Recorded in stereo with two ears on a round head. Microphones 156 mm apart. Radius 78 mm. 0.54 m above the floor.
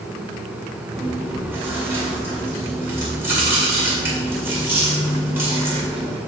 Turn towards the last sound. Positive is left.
turn(degrees=-15)  # may be behind; listen again after turning